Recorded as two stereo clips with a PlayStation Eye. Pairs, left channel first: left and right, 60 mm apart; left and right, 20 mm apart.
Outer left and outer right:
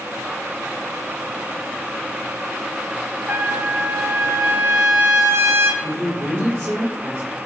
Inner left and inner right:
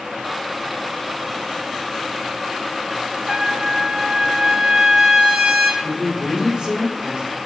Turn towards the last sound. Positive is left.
turn(degrees=-50)  # may be behind; listen again after turning